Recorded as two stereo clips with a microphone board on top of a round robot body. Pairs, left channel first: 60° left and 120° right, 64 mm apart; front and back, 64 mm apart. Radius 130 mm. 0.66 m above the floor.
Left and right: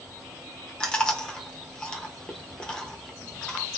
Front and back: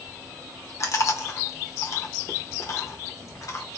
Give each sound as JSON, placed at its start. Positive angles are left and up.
{"t": 0.8, "sound": "chewing", "azimuth_deg": -10, "distance_m": 0.8}